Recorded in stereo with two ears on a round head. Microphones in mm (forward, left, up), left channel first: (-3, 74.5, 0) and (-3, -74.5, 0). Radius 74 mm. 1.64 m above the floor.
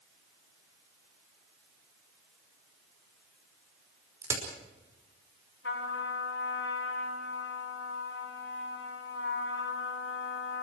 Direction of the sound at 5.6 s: 75° left (ahead or behind).